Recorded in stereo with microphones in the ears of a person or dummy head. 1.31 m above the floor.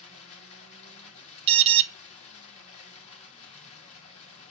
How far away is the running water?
About 1.6 m.